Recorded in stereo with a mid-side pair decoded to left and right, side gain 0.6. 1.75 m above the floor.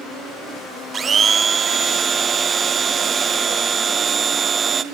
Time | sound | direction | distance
0.9 | a blender | 35° right | 0.7 m